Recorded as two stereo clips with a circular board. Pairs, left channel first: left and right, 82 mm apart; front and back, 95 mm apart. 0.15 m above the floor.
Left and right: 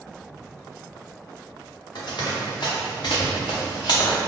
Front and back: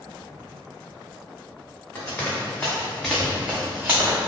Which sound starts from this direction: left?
Running footsteps, at 1.9 s.